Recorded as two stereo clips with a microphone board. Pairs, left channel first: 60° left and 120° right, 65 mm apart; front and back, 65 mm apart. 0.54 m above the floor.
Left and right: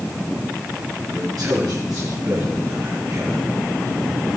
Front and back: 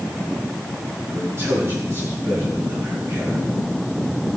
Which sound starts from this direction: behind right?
A man speaking, at 1.1 s.